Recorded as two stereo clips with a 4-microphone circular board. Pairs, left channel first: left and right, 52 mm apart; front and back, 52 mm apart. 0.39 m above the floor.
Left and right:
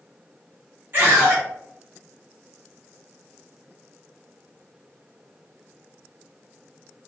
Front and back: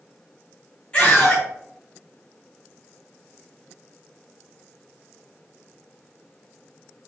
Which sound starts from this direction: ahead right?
A scream, at 0.9 s.